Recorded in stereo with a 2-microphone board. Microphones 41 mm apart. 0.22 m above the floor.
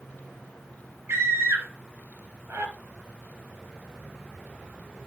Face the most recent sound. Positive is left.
turn(degrees=-75)  # may be behind; listen again after turning